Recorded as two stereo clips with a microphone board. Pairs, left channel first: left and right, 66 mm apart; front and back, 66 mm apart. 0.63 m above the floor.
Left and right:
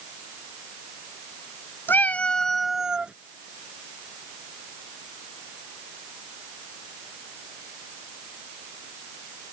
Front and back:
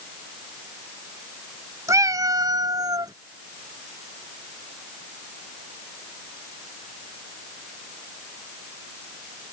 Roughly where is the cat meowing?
Behind left.